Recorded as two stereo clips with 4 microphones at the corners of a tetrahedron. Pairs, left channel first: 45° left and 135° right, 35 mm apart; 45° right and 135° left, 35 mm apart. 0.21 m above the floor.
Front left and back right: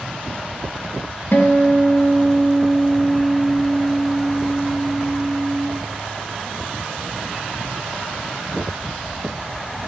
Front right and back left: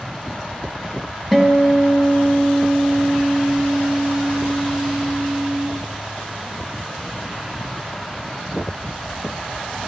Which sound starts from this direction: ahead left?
A guitar, at 1.3 s.